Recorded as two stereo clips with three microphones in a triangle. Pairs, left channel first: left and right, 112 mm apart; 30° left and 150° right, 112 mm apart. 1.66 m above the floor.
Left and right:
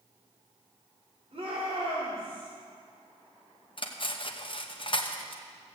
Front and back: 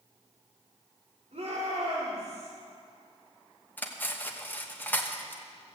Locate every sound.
1.3 s a shout: 125° right, 5.5 m; by 2.5 s 135° right, 4 m
3.8 s cutlery clinking: 95° left, 1.0 m